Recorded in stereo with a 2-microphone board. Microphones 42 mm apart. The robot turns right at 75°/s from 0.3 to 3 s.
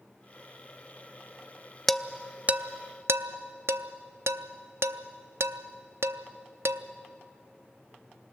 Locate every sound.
1.9 s dishes clattering: 10° left (ahead or behind), 0.5 m; by 6.8 s 75° right (ahead or behind), 0.5 m